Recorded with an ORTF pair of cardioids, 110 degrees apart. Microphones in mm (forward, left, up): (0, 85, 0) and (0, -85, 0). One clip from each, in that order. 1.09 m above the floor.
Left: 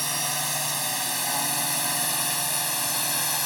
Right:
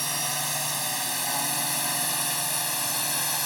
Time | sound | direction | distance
0.0 | a drone | 10° left | ?